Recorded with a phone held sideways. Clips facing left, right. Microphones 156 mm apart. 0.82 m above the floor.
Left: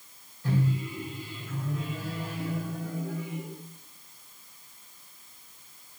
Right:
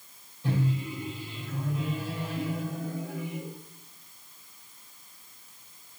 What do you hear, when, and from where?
0.4 s a microwave: 20° right (ahead or behind), 2.5 m